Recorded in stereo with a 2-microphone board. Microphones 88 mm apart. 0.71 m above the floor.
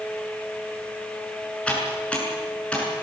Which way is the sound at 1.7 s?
15° left (ahead or behind).